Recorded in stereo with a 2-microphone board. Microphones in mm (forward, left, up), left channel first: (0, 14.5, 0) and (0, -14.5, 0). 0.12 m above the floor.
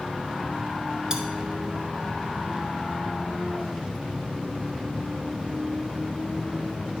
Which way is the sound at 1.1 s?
25° right (ahead or behind).